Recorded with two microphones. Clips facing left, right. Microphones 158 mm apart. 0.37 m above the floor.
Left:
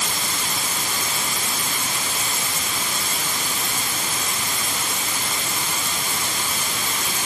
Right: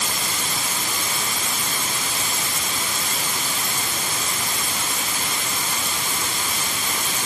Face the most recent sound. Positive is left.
No sound to turn to.